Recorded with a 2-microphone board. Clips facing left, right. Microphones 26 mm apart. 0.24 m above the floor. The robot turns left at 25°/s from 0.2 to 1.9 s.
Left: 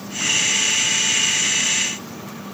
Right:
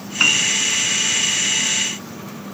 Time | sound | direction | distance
0.2 | a piano | 55° right (ahead or behind) | 3 m